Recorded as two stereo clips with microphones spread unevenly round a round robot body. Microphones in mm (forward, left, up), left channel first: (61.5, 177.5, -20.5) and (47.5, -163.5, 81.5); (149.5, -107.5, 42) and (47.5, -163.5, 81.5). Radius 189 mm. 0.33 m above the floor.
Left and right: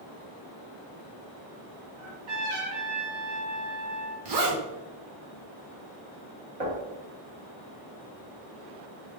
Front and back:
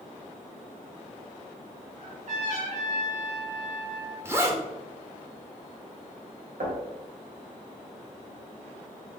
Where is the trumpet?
125° right, 2 m.